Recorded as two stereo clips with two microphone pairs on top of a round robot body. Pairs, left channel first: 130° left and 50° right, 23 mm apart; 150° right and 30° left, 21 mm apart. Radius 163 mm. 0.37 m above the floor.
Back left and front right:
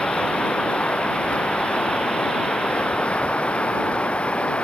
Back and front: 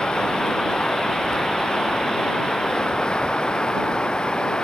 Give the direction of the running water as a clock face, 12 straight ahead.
7 o'clock.